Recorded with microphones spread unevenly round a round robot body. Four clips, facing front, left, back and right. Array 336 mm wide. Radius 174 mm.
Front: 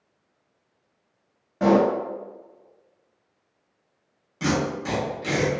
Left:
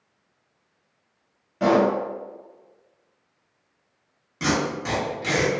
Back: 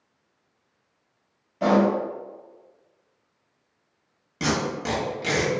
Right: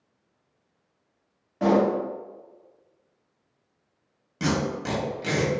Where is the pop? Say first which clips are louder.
Left 2 dB, front 1 dB; 15° left, 1.2 m.